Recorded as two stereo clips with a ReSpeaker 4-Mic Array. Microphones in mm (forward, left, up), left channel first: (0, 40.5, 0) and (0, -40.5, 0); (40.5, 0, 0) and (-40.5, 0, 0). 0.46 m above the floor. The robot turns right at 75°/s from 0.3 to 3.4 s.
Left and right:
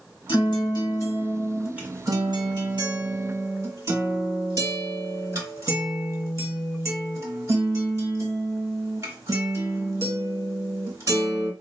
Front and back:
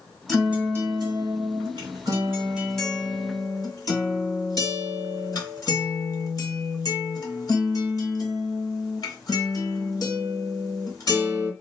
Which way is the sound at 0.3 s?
90° left.